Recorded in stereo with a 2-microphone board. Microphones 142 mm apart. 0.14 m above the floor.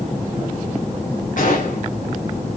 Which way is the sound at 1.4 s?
65° left (ahead or behind).